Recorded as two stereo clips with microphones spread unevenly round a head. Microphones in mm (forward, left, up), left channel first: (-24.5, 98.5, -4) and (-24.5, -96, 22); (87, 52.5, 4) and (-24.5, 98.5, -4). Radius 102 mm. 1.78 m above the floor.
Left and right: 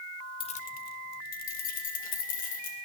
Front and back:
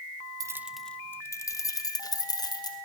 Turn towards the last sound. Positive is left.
turn(degrees=35)